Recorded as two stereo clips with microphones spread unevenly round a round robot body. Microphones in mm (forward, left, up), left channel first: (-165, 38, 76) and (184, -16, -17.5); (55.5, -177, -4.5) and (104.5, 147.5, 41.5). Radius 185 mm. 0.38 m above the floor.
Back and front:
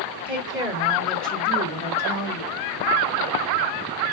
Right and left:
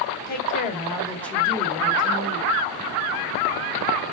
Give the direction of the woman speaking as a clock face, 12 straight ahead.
2 o'clock.